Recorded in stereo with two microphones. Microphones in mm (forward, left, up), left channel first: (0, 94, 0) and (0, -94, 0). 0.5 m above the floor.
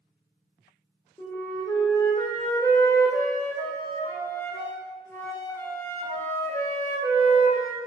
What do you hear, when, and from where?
1.2 s a flute: 15° left (ahead or behind), 0.6 m